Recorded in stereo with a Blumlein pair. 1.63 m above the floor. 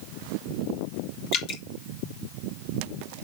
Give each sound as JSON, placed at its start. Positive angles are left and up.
{"t": 1.3, "sound": "dripping", "azimuth_deg": 35, "distance_m": 3.5}